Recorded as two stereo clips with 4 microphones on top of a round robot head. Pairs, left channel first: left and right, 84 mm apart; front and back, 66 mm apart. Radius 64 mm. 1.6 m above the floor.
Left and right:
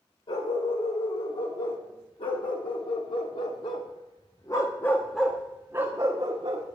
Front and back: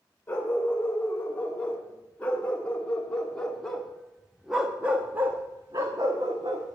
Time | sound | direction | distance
0.3 | a dog barking | 65° left | 3.5 m